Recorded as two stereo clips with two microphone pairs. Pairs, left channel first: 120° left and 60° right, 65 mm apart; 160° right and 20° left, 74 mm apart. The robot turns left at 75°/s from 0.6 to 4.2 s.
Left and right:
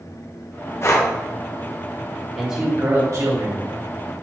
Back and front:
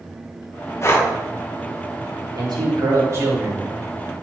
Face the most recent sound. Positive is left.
turn(degrees=-105)